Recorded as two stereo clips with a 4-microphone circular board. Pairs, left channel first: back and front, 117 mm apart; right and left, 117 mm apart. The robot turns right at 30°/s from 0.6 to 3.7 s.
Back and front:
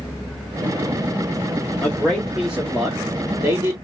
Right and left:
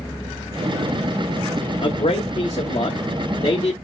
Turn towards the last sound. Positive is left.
turn(degrees=-45)